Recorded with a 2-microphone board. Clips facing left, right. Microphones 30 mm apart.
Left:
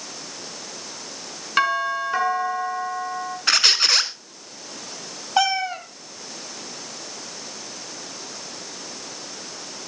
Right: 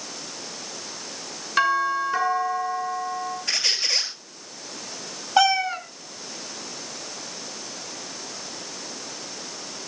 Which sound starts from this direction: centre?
A cat meowing, at 5.4 s.